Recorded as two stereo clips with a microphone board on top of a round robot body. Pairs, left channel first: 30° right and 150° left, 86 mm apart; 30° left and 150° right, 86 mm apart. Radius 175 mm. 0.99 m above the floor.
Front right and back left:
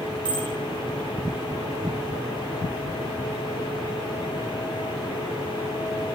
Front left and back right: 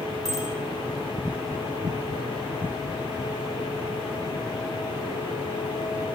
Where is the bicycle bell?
120° left, 9 m.